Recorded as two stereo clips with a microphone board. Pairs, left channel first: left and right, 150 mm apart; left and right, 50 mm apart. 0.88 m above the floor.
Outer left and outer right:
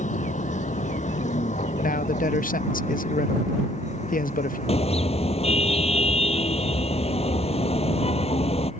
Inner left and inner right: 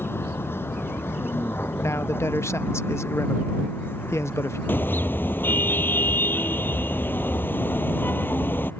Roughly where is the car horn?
Left.